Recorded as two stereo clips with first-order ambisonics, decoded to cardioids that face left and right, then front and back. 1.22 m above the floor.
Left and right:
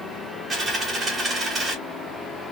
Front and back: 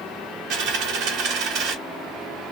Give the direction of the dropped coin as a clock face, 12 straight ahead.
5 o'clock.